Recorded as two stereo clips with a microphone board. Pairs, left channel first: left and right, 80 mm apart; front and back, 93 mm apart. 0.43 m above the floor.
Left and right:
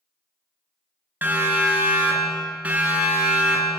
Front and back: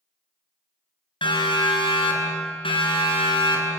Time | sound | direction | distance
1.2 | a siren | 25° right | 6.5 m